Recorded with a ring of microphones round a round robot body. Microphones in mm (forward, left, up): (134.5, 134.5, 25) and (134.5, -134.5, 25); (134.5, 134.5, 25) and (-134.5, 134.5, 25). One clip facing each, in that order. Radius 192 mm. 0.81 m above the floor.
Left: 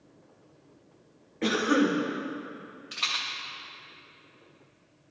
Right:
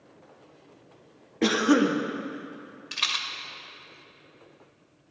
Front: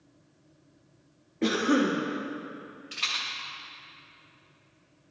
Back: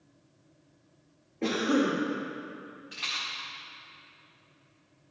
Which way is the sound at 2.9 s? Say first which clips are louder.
Right 1 dB, front 1 dB; 50° right.